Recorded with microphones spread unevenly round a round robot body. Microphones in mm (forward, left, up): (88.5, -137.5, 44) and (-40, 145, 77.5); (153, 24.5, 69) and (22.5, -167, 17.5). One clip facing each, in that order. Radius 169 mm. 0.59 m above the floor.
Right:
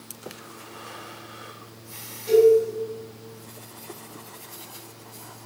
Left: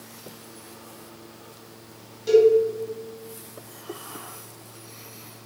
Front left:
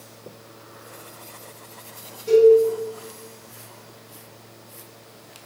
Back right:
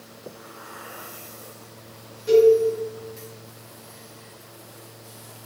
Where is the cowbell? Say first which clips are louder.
Even, front left 1 dB; 155° left, 1.7 m.